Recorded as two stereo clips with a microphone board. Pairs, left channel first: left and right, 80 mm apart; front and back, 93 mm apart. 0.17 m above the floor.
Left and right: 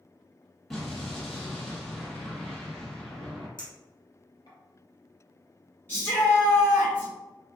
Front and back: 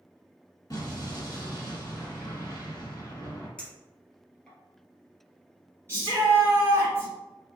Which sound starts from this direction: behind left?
A shout, at 5.9 s.